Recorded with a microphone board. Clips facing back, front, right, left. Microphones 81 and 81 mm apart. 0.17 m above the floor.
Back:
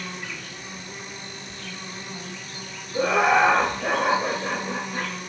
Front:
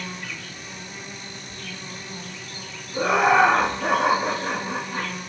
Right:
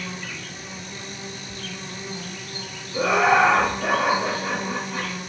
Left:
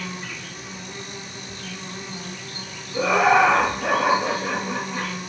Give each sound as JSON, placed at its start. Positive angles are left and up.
{"t": 0.0, "sound": "an insect", "azimuth_deg": 95, "distance_m": 1.8}
{"t": 2.9, "sound": "laughter", "azimuth_deg": -5, "distance_m": 1.4}